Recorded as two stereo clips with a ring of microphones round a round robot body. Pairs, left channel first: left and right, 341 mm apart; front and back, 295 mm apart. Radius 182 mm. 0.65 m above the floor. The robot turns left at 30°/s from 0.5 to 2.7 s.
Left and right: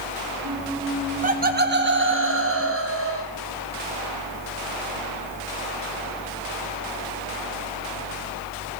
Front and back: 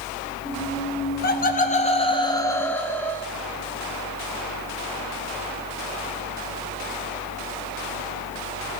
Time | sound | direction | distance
1.2 | laughter | 35° right | 0.9 m